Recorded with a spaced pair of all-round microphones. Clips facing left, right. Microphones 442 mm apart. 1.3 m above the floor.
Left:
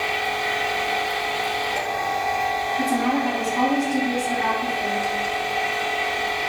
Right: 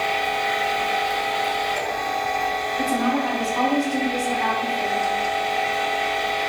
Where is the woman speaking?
35° left (ahead or behind), 3 m.